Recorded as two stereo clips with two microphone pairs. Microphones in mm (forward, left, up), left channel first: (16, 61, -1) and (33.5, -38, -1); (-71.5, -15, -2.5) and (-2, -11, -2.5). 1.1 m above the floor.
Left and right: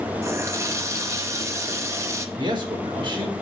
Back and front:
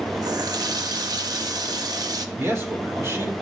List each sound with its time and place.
0.2 s a running tap: 20° right, 0.8 m
2.4 s a man speaking: 40° right, 3.5 m